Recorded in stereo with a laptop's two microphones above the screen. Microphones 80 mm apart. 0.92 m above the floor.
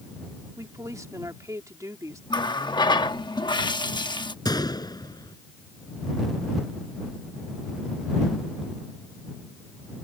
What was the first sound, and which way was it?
A woman speaking, 45° right (ahead or behind).